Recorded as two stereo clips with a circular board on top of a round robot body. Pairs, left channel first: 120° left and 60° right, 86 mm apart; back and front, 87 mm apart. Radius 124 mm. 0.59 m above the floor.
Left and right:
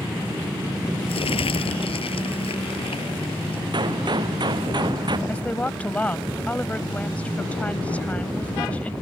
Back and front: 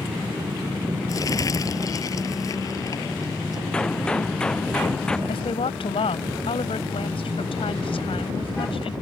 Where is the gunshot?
100° right.